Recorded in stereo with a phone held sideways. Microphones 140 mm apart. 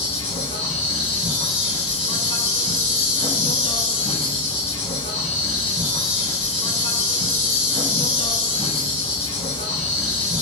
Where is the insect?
45° left (ahead or behind), 1.9 m.